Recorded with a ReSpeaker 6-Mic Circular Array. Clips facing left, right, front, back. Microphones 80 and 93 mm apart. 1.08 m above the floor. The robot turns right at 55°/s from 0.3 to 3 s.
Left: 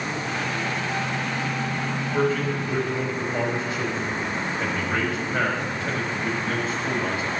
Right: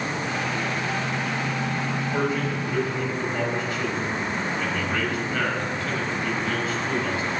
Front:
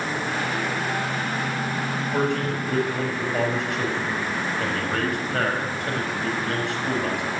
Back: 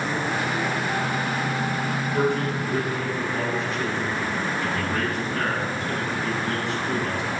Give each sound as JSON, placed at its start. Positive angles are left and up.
{"t": 2.1, "sound": "a man speaking", "azimuth_deg": -25, "distance_m": 5.5}